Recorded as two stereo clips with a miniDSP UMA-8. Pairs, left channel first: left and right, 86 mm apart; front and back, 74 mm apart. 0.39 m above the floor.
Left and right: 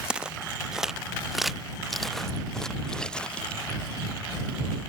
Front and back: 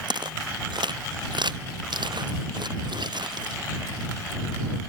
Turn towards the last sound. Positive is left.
turn(degrees=170)